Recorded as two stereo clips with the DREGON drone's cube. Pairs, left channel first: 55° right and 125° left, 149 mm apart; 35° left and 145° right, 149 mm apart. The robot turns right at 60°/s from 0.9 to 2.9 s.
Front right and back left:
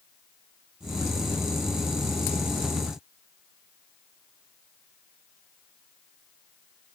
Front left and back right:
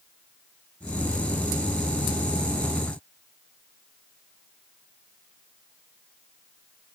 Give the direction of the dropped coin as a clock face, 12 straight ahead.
I don't hear a dropped coin.